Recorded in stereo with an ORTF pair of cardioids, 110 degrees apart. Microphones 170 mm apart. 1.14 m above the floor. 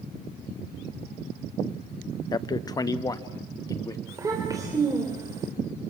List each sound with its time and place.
2.3 s a man speaking: 25° left, 0.8 m; by 4.0 s 20° left, 2 m
4.1 s a child speaking: 20° right, 3.5 m